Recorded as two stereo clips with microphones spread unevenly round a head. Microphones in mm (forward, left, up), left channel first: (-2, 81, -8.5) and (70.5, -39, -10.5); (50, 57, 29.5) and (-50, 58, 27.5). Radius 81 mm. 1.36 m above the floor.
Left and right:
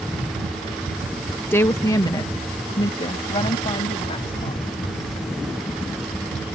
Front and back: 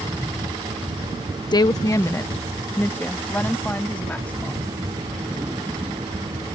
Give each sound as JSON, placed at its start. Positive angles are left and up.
{"t": 1.5, "sound": "a woman speaking", "azimuth_deg": 45}